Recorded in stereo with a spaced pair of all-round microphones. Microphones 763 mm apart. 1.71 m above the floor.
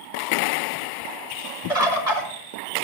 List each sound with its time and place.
1.7 s a bird: 45° left (ahead or behind), 2 m